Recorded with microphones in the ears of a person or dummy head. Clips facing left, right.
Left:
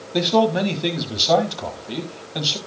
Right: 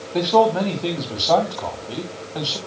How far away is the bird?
No bird in this recording.